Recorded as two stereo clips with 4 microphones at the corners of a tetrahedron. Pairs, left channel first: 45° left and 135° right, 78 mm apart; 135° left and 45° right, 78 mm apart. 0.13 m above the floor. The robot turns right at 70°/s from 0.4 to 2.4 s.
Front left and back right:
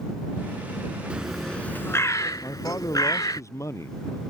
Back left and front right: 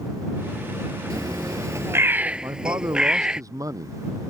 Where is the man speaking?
Straight ahead.